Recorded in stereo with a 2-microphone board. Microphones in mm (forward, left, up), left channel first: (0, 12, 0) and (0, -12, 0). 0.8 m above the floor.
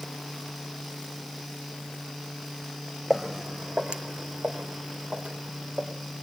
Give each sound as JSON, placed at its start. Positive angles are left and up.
{"t": 3.1, "sound": "footsteps", "side_deg": -15, "distance_m": 1.4}